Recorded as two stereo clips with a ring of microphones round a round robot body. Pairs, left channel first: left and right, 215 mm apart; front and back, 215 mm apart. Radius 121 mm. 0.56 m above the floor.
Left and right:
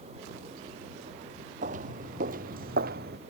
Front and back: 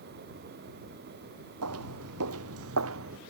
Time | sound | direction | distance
1.6 | footsteps | 150° right | ?